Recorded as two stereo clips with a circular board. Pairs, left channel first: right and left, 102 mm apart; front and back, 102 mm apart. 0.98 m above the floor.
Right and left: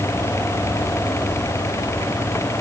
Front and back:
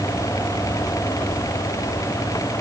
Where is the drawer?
No drawer in this recording.